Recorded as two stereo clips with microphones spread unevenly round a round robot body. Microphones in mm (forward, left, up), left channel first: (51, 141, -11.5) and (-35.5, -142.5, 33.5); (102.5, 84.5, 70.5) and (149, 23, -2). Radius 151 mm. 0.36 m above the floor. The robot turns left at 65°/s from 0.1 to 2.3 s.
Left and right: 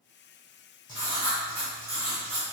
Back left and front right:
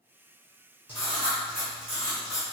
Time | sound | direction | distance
0.9 | writing | 15° left | 1.5 m